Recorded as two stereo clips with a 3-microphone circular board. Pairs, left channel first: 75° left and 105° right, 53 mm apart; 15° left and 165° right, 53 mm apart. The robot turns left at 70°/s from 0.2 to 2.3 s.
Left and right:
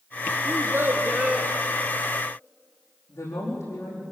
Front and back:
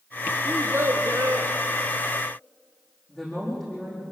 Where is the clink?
No clink in this recording.